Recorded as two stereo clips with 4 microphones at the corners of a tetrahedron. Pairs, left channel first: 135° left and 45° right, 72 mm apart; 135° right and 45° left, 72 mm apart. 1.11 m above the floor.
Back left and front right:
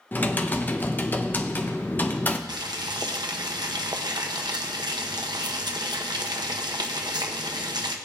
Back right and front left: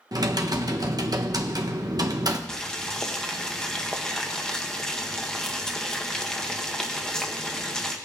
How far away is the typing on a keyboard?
About 0.7 m.